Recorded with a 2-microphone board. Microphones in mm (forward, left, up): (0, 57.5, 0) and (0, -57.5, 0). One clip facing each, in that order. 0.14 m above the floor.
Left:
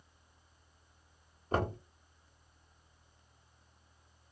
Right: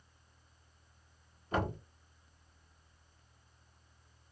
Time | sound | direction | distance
1.5 | knocking | 40° left (ahead or behind) | 0.9 m